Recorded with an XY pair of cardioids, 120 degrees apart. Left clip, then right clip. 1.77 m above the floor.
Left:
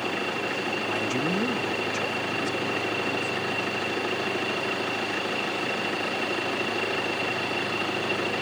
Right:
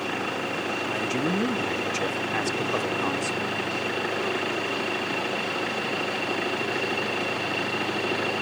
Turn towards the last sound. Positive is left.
turn(degrees=-65)